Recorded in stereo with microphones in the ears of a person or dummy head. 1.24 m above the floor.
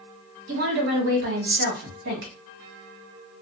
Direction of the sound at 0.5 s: 60° right (ahead or behind).